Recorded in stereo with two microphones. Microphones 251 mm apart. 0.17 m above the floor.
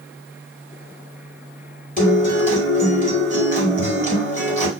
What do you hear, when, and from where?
2.0 s a guitar: 35° left (ahead or behind), 1.5 m